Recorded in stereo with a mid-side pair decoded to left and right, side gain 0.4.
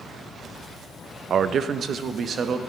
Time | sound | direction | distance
1.3 | a man speaking | 60° right | 0.5 m